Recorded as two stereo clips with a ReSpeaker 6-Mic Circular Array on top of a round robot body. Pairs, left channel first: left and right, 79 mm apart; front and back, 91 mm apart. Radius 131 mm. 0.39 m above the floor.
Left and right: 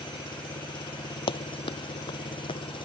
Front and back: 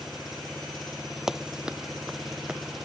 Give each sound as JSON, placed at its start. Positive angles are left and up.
{"t": 0.0, "sound": "an engine running", "azimuth_deg": 90}
{"t": 1.3, "sound": "running footsteps", "azimuth_deg": 95}